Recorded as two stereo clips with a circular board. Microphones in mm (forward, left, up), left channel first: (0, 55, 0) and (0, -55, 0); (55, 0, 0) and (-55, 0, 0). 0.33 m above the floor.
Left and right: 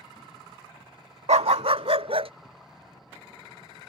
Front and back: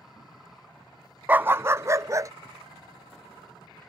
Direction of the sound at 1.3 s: 105° right.